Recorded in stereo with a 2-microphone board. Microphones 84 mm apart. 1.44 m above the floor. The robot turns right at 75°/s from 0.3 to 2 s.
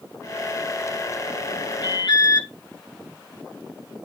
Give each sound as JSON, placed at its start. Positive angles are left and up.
{"t": 1.8, "sound": "an alarm", "side_deg": 60, "distance_m": 6.5}